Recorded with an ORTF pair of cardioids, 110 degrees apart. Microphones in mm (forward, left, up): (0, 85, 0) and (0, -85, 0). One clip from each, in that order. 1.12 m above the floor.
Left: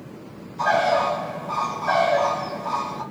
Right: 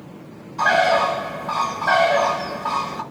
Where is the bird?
60° right, 1.7 m.